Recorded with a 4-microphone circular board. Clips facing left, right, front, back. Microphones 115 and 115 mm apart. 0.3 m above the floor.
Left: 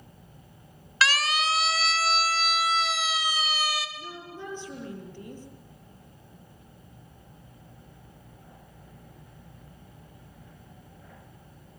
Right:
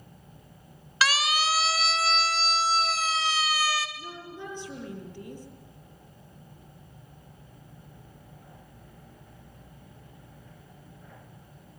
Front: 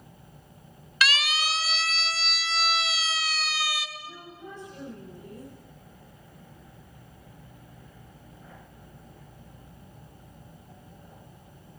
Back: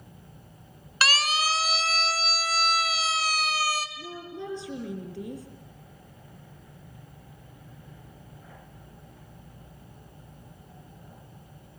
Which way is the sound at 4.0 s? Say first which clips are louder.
Even, back 6 dB; 175° left.